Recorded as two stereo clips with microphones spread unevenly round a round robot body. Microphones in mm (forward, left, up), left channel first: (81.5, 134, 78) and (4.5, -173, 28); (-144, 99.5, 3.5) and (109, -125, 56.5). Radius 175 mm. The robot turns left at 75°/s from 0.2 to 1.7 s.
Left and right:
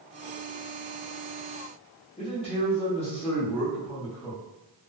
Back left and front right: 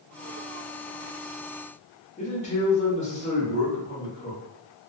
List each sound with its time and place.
2.2 s a man speaking: 145° left, 0.8 m